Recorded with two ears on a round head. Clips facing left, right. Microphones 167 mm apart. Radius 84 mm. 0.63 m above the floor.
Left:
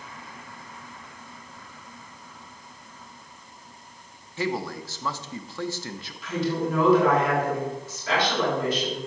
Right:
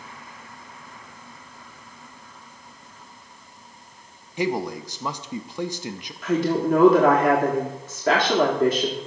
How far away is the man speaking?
About 0.5 m.